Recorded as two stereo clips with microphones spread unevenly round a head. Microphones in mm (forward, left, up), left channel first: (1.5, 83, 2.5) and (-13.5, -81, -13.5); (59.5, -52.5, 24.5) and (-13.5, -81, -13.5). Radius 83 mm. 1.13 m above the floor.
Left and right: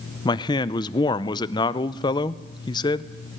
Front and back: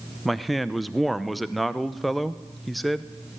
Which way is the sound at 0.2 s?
145° left.